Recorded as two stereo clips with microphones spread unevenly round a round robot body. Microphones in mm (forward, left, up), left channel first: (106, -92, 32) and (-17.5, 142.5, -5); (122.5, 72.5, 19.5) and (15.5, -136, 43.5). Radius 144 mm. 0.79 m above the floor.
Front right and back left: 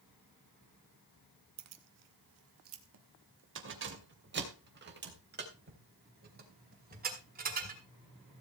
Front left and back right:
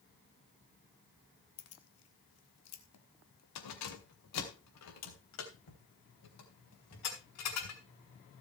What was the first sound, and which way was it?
Keys jangling, 100° left.